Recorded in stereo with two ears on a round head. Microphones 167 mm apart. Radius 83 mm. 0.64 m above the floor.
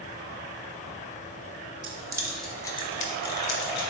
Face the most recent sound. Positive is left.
turn(degrees=65)  # may be behind; listen again after turning